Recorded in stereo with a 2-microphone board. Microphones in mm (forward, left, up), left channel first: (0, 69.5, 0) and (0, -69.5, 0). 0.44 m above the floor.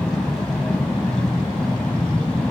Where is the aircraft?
5° left (ahead or behind).